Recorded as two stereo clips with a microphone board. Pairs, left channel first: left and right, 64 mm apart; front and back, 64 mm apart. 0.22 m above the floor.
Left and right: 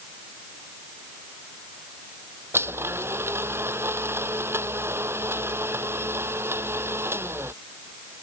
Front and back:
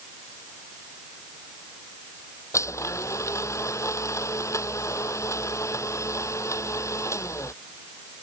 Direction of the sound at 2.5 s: 40° right.